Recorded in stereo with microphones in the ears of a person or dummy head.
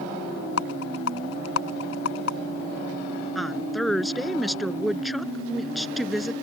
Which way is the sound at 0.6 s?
85° left.